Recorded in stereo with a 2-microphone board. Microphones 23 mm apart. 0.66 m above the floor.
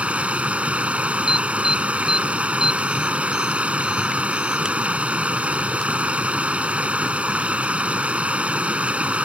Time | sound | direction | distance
0.0 | running water | 70° right (ahead or behind) | ?
1.3 | an alarm | 20° right (ahead or behind) | ?